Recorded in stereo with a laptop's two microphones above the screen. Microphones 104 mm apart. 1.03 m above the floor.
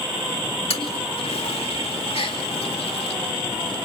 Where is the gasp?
70° left (ahead or behind), 2.5 m.